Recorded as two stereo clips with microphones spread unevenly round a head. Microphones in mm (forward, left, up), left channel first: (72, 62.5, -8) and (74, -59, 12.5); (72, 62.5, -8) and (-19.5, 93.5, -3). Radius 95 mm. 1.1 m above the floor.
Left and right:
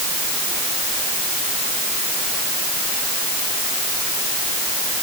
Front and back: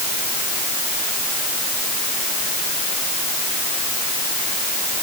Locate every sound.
Only background noise.